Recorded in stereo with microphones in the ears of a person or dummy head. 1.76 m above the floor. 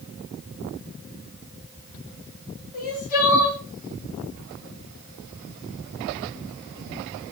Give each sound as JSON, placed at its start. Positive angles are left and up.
{"t": 2.7, "sound": "crying", "side_deg": 50, "distance_m": 2.5}